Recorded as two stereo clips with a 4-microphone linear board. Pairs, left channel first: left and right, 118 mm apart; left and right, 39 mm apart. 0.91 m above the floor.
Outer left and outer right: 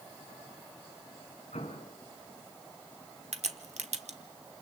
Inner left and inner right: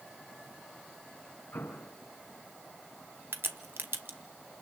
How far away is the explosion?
About 3.5 m.